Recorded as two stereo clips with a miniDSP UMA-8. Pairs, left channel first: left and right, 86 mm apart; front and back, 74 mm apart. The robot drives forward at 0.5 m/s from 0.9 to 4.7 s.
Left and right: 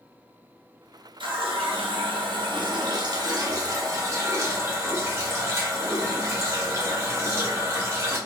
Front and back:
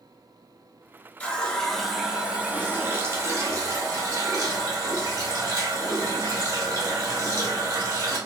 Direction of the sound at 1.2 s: 70° right.